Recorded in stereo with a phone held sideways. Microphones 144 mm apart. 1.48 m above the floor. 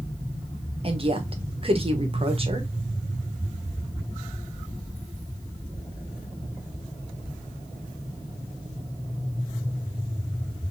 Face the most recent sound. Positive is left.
turn(degrees=-40)  # may be behind; listen again after turning